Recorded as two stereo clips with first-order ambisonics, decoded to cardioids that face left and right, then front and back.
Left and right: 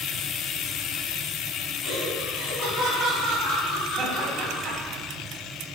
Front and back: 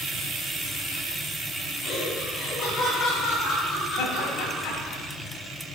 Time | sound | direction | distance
1.8 | laughter | 55° left | 1.9 m
4.0 | laughter | 10° right | 2.5 m